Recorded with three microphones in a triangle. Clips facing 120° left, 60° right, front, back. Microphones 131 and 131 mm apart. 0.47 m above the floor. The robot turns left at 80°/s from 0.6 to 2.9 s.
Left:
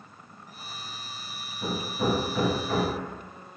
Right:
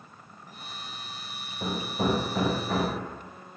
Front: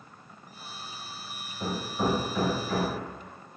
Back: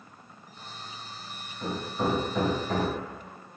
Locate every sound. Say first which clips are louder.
1.6 s hammering: even, even; 40° right, 1.6 m; by 3.0 s 145° right, 1.6 m